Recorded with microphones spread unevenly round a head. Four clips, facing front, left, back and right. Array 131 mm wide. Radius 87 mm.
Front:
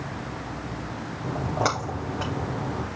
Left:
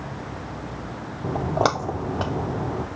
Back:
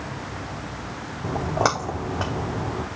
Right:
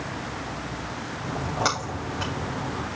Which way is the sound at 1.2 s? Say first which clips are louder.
Left 5 dB, back 3 dB; 110° left.